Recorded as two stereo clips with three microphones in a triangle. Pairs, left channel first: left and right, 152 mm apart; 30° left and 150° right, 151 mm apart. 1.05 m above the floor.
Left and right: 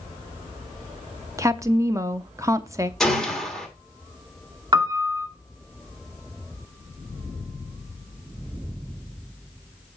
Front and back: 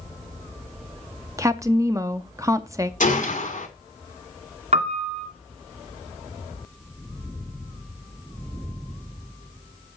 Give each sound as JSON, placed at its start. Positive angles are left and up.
{"t": 1.4, "sound": "a woman speaking", "azimuth_deg": -120, "distance_m": 0.5}
{"t": 3.0, "sound": "a gunshot", "azimuth_deg": 0, "distance_m": 1.8}
{"t": 4.7, "sound": "a piano", "azimuth_deg": -145, "distance_m": 1.5}